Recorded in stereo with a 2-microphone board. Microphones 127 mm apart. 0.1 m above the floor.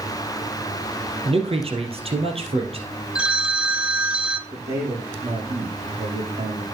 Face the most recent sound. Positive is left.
turn(degrees=-55)  # may be behind; listen again after turning